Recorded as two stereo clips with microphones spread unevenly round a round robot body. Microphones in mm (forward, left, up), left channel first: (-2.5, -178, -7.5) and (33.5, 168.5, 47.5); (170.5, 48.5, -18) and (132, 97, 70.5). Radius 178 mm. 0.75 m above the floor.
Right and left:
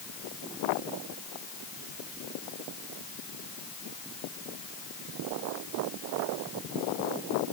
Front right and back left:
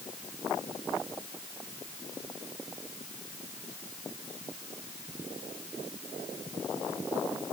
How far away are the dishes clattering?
No dishes clattering in this recording.